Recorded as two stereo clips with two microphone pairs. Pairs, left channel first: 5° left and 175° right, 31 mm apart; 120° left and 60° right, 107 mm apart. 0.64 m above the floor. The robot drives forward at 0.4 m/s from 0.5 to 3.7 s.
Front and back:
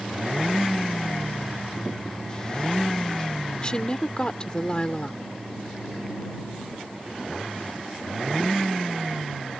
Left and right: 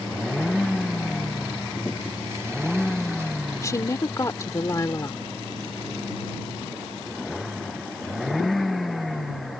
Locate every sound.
3.6 s a woman speaking: 60° left